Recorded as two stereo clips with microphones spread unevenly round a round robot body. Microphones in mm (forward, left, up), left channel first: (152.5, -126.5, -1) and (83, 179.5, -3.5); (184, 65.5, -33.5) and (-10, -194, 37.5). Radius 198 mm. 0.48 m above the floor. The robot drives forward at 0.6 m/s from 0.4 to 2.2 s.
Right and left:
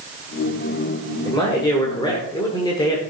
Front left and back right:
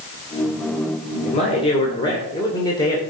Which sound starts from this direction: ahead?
A man speaking, at 1.2 s.